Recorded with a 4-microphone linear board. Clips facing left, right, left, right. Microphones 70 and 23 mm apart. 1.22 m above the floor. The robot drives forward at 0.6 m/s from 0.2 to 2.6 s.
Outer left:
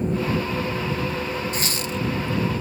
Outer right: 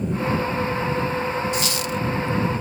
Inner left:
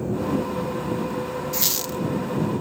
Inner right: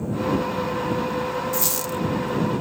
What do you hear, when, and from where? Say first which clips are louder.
1.5 s a squeak: outer right 3 dB, even; 40° left (ahead or behind), 1.2 m; by 2.0 s 35° left (ahead or behind), 1.4 m